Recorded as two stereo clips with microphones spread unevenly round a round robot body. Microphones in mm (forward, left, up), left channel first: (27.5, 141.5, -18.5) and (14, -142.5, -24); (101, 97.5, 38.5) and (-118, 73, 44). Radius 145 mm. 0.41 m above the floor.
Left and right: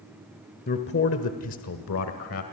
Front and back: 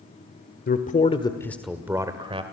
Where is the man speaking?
35° left, 1.6 m; by 2.4 s 125° left, 1.9 m.